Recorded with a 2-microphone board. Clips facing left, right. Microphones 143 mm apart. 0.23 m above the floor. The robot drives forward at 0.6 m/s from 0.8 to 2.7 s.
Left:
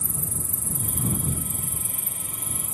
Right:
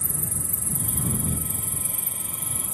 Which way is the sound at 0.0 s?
85° right.